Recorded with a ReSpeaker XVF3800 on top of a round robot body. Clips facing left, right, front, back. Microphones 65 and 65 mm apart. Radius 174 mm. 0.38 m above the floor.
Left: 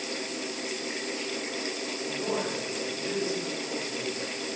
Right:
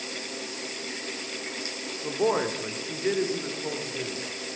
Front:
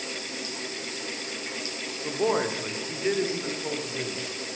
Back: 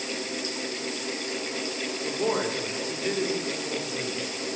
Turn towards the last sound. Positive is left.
turn(degrees=-45)